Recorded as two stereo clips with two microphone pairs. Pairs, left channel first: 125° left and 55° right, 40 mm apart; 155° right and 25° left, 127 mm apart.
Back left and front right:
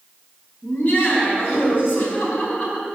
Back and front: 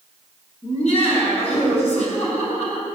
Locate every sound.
0.6 s laughter: 175° left, 4.5 m